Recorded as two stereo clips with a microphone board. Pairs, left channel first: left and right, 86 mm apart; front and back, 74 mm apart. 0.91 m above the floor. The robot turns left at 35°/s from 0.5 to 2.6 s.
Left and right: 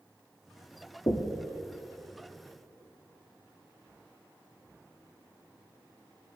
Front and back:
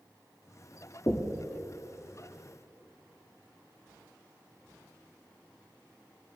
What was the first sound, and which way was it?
Knocking, 45° left.